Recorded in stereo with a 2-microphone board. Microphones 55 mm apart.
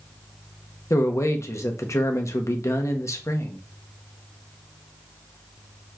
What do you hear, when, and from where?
0.9 s a man speaking: 65° left (ahead or behind), 0.6 m